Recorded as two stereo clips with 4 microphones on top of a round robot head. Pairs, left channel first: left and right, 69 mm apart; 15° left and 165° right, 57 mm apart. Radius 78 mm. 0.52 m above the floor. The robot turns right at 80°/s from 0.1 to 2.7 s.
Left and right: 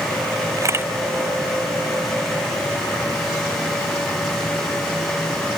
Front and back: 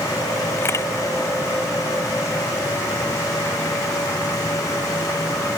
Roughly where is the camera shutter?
Ahead right.